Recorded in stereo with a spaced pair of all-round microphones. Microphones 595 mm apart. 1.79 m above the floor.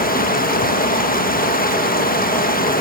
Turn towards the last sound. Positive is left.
turn(degrees=15)  # may be behind; listen again after turning